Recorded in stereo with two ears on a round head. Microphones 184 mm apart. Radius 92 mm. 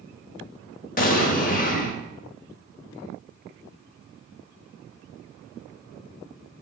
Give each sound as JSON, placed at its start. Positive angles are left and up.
{"t": 1.0, "sound": "an explosion", "side_deg": 40, "distance_m": 0.9}